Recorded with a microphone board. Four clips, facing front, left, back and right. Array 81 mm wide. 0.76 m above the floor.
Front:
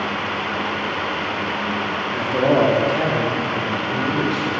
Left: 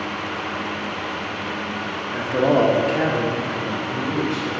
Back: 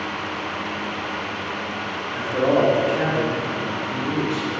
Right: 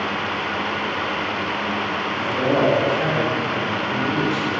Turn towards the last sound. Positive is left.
turn(degrees=70)